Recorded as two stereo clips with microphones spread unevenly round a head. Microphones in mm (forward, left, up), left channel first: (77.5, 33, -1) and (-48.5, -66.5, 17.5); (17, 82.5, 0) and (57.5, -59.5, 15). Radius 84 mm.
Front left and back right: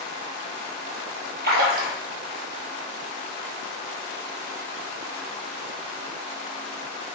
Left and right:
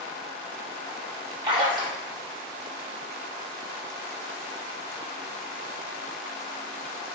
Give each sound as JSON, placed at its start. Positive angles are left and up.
{"t": 1.4, "sound": "a splash", "azimuth_deg": -135, "distance_m": 0.8}